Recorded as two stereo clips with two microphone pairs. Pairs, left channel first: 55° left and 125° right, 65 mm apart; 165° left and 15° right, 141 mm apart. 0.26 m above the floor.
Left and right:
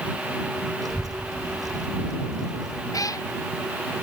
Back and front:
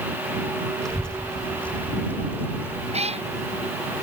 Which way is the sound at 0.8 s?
105° right.